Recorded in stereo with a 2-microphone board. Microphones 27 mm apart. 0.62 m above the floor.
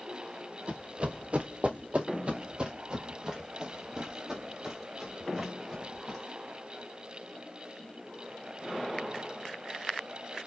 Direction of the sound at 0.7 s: 45° right (ahead or behind).